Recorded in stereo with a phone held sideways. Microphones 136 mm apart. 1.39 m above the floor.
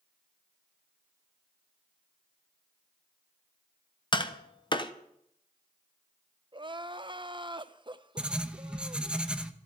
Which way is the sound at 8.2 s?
5° right (ahead or behind).